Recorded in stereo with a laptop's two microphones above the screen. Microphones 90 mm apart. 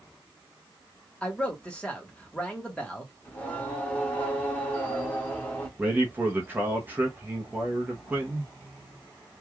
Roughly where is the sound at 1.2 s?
Centre.